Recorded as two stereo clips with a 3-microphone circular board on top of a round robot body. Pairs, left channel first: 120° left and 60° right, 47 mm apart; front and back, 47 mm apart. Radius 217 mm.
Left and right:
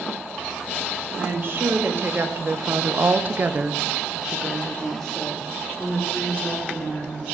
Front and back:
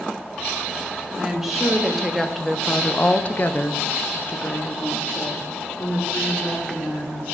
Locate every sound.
1.2 s a woman speaking: 100° right, 1.8 m; by 7.3 s 55° left, 2.5 m